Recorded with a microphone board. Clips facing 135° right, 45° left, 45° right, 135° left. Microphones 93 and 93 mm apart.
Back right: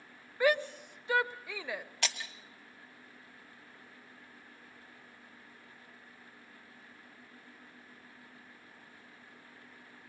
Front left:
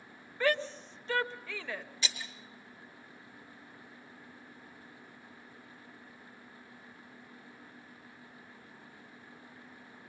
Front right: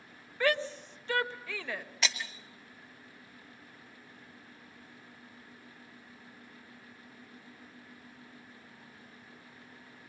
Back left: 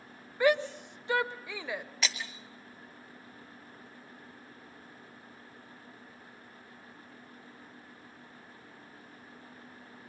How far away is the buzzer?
I don't hear a buzzer.